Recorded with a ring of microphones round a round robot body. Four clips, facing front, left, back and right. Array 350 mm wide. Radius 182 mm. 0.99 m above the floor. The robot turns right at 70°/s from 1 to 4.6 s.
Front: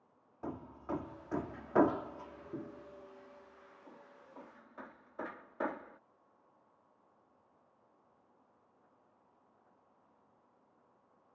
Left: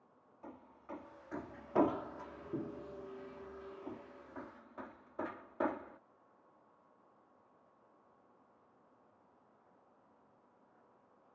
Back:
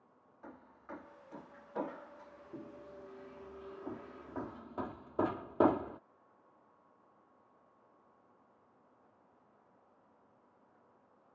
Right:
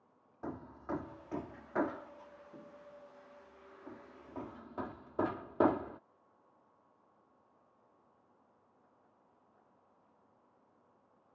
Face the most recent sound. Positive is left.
turn(degrees=-145)